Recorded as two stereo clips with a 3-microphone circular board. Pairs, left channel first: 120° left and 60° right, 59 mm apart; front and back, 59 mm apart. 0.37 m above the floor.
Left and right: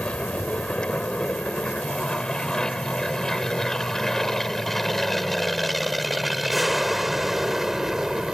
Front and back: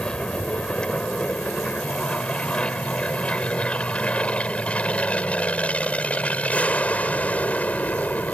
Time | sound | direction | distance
0.0 | an aircraft | 60° left | ?